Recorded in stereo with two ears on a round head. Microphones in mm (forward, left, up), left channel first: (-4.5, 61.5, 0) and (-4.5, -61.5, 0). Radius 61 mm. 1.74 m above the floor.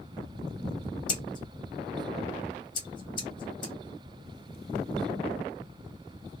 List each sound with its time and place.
1.1 s scissors: 35° left (ahead or behind), 0.9 m